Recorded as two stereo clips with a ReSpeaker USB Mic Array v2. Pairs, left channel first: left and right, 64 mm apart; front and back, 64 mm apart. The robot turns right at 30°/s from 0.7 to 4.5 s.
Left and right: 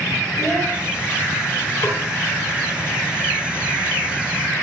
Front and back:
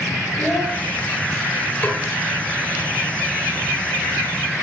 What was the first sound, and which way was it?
A child speaking, 55° left.